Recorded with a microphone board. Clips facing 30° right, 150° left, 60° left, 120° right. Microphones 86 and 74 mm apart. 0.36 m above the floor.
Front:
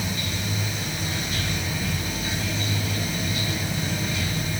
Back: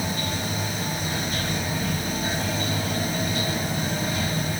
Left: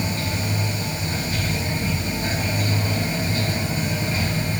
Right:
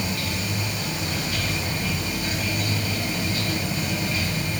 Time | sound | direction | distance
0.0 | running water | 110° left | 1.6 m